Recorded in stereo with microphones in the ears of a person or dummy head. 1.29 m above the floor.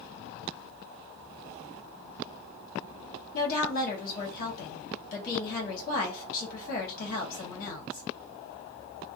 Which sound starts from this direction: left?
A woman speaking, at 3.3 s.